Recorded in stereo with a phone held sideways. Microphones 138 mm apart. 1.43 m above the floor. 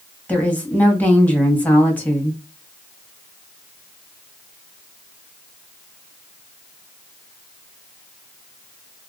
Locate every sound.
0.3 s a woman speaking: 10° left (ahead or behind), 1.3 m